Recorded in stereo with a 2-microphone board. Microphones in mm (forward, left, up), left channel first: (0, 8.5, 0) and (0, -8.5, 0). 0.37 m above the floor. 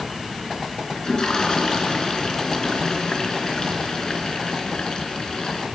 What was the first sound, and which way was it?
A toilet flushing, 45° left (ahead or behind).